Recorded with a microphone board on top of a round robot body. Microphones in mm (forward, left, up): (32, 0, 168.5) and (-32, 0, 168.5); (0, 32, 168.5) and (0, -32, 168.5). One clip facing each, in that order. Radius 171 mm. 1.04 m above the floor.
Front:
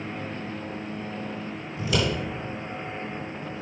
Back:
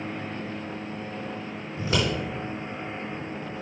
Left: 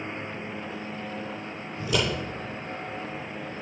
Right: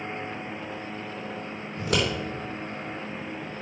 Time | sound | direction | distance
1.8 | scissors | 125° right | 4 m